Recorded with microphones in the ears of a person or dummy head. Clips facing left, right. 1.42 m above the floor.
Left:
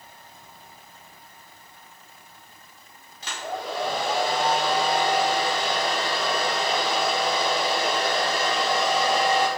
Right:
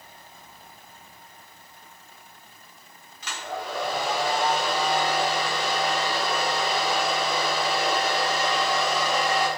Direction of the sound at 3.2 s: 35° left (ahead or behind).